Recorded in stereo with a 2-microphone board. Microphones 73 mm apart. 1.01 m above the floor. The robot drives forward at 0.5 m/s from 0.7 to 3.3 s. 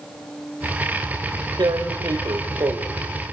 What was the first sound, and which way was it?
Tearing paper, 80° right.